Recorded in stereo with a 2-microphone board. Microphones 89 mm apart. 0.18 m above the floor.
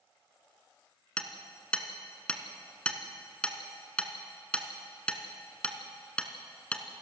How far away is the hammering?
About 2 m.